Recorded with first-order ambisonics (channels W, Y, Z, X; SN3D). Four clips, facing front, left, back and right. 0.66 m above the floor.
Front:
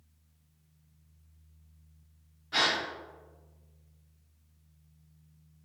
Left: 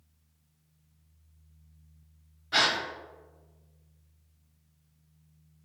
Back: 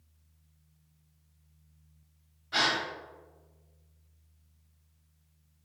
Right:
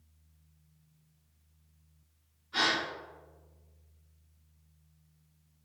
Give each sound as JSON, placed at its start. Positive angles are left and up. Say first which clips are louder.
{"t": 2.5, "sound": "a gasp", "louder": "left 4 dB, even", "azimuth_deg": 90, "distance_m": 0.7}